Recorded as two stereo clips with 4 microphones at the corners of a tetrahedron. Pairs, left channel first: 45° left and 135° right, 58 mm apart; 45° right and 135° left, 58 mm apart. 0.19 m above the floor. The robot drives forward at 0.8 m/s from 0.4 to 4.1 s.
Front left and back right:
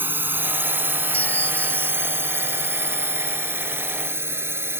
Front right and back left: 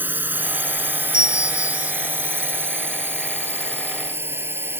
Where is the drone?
Straight behind.